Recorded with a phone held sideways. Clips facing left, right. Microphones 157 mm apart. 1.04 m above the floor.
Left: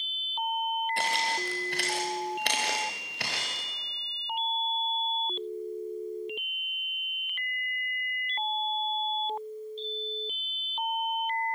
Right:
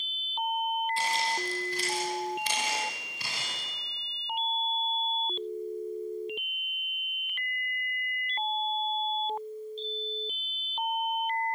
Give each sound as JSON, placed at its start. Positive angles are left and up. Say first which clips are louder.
{"t": 1.0, "sound": "footsteps", "louder": "even", "side_deg": 65, "distance_m": 4.5}